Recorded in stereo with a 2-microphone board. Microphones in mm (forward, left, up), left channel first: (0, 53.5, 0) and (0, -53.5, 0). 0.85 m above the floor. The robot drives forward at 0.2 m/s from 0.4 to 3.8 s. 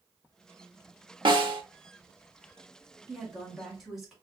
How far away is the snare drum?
About 0.8 m.